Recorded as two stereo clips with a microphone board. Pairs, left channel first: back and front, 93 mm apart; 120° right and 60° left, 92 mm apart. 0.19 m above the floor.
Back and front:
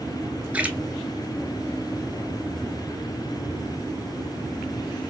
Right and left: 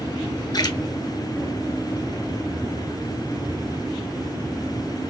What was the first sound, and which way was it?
A splash, 75° right.